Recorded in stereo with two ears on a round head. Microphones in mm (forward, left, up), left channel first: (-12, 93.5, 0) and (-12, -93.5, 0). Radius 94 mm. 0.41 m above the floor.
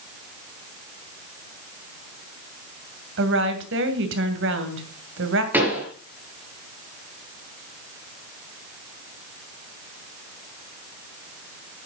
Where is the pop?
10° right (ahead or behind), 4.5 m.